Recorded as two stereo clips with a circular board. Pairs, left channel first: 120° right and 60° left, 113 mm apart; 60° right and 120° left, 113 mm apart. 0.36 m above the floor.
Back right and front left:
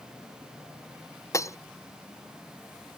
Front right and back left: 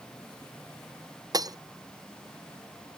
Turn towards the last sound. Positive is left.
turn(degrees=175)